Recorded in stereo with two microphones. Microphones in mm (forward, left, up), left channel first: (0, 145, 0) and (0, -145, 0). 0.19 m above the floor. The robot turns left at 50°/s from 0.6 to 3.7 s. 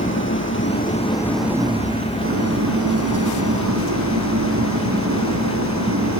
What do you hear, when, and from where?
0.0 s an engine running: 40° left, 4 m; by 6.2 s 115° right, 4 m